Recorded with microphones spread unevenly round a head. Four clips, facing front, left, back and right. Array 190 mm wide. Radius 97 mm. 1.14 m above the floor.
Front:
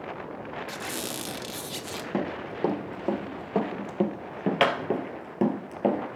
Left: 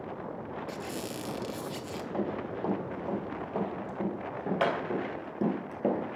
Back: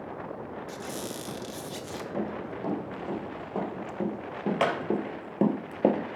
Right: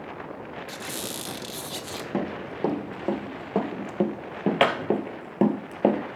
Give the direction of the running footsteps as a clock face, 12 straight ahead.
2 o'clock.